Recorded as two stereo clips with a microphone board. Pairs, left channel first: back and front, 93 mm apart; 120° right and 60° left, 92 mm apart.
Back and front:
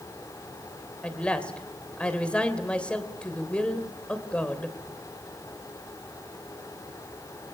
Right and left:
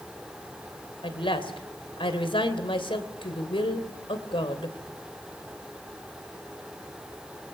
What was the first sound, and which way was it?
A woman speaking, 100° right.